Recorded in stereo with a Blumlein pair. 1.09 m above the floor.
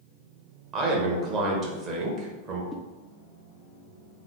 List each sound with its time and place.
0.7 s a man speaking: 30° right, 1.1 m
2.7 s a whoosh: 5° left, 0.5 m